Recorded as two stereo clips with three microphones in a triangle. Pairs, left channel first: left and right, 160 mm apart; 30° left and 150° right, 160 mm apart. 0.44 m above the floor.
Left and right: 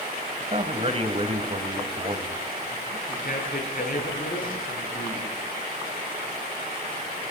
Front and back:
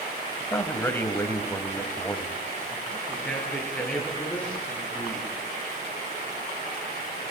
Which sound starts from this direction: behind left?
A man speaking, at 3.1 s.